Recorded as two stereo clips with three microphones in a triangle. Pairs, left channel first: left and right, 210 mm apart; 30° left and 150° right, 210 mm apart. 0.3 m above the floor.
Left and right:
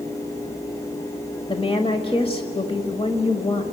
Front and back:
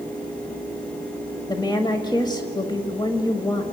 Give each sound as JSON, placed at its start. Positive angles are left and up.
{"t": 1.5, "sound": "a woman speaking", "azimuth_deg": 70, "distance_m": 1.3}